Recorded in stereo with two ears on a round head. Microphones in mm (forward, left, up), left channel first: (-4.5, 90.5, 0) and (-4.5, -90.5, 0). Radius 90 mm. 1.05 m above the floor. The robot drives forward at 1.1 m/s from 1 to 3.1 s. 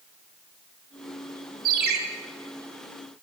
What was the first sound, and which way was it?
A ringtone, 45° right (ahead or behind).